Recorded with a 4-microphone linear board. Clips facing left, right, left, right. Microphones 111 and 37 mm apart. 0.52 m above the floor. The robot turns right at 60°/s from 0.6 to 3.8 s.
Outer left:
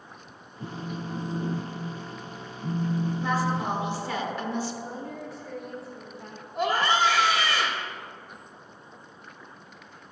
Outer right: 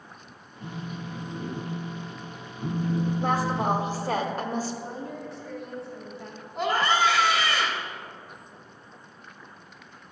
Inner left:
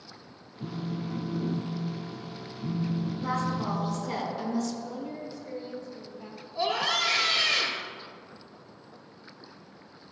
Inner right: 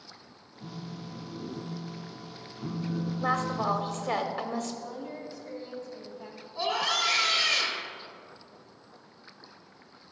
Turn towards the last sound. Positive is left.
turn(degrees=5)  # may be behind; listen again after turning